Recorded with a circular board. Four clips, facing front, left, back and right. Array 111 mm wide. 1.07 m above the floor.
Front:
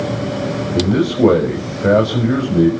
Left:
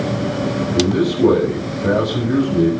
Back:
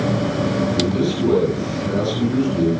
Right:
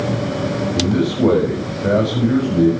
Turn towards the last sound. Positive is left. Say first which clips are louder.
# left 2 dB, front 4 dB
turn(degrees=0)